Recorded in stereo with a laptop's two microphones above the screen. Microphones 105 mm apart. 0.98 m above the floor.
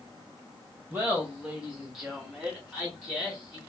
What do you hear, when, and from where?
0.9 s laughter: 15° right (ahead or behind), 0.9 m; by 3.6 s 10° left (ahead or behind), 1.2 m